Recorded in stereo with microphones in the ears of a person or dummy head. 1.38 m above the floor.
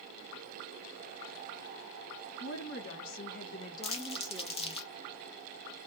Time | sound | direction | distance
2.4 | a woman speaking | 70° left (ahead or behind) | 1.0 m
3.8 | crumpling | 25° left (ahead or behind) | 0.5 m